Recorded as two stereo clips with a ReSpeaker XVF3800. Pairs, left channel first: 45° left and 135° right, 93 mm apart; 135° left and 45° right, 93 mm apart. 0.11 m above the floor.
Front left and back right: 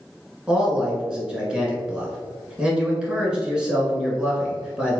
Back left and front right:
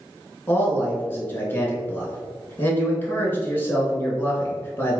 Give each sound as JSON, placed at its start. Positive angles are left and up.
{"t": 0.5, "sound": "a man speaking", "azimuth_deg": 160, "distance_m": 1.2}